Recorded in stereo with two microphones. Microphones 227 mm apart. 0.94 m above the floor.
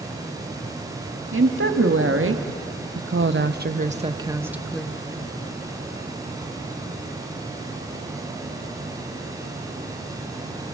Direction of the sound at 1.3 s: 60° right (ahead or behind).